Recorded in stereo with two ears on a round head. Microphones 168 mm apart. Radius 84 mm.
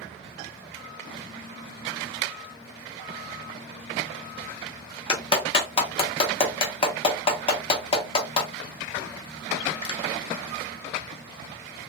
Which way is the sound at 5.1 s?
30° left (ahead or behind).